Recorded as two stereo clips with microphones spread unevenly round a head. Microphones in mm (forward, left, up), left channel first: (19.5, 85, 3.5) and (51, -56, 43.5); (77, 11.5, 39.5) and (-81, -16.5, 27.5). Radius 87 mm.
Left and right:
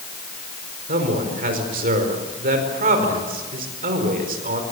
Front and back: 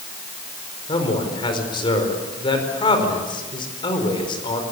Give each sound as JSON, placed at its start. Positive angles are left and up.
{"t": 0.9, "sound": "a man speaking", "azimuth_deg": -50, "distance_m": 5.0}